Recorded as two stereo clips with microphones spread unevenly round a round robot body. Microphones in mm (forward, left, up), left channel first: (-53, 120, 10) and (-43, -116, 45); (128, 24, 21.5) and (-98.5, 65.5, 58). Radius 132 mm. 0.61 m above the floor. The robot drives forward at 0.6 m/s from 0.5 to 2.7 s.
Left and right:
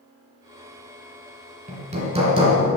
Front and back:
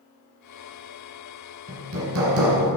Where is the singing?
No singing in this recording.